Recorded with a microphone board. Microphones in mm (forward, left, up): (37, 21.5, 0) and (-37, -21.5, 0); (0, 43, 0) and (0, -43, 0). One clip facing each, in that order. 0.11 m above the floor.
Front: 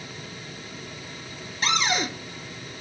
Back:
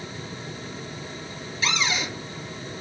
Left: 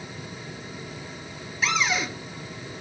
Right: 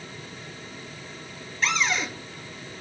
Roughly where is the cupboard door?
Ahead.